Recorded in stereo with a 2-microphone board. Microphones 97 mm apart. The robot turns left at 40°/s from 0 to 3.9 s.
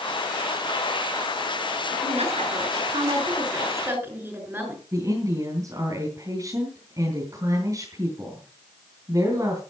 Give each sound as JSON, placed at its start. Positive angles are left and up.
{"t": 2.0, "sound": "a woman speaking", "azimuth_deg": -85, "distance_m": 7.0}
{"t": 4.9, "sound": "a woman speaking", "side_deg": -35, "distance_m": 4.0}